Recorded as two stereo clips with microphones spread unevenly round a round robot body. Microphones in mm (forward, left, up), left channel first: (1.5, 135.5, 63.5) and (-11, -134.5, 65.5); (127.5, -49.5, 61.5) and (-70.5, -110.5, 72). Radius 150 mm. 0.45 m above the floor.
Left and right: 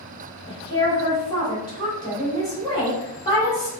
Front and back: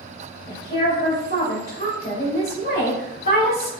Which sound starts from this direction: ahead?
A woman speaking, at 0.5 s.